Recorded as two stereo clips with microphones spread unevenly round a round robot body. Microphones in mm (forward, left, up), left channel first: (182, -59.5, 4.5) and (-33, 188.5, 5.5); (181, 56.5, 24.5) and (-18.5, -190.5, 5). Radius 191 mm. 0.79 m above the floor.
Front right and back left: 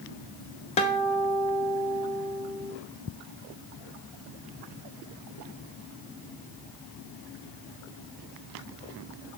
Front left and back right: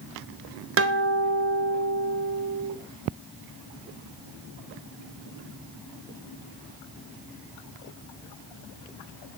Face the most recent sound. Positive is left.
turn(degrees=-115)